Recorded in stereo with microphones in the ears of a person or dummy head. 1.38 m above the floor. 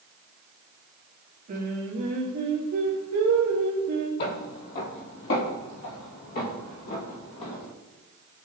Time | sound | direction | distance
1.5 | singing | 45° right (ahead or behind) | 2.5 m
4.2 | footsteps | 55° left (ahead or behind) | 2.5 m